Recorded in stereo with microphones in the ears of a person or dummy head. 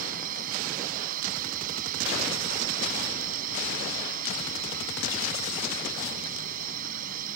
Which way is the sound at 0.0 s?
50° right (ahead or behind).